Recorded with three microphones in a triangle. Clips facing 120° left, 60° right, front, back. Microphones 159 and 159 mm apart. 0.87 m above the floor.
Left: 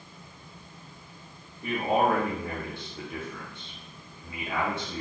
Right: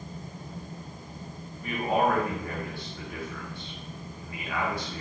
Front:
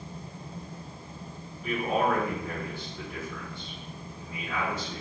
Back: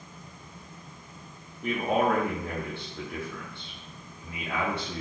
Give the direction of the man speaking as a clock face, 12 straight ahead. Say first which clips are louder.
Left 1 dB, back 2 dB; 6 o'clock.